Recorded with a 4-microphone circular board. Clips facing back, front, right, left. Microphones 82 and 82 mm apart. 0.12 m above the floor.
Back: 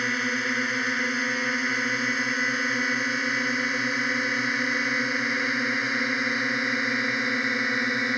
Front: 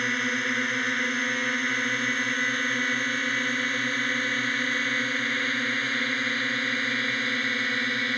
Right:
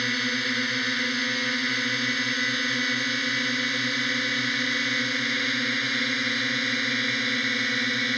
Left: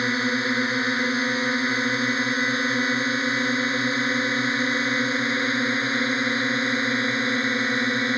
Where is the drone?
100° left; by 8.2 s 120° left.